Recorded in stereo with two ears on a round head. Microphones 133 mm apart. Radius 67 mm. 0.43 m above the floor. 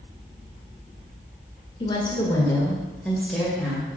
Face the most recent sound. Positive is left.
turn(degrees=-5)  # may be behind; listen again after turning